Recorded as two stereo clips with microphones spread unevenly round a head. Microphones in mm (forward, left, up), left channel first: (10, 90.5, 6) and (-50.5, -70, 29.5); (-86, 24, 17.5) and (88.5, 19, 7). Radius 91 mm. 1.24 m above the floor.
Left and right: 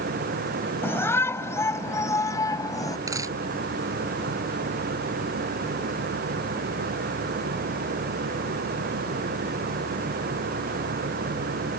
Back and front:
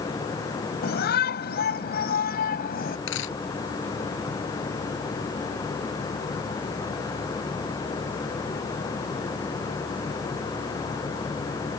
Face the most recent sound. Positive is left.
turn(degrees=180)